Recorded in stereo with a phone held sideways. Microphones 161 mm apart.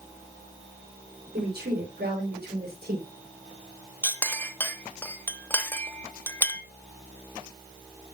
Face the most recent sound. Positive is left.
turn(degrees=15)  # may be behind; listen again after turning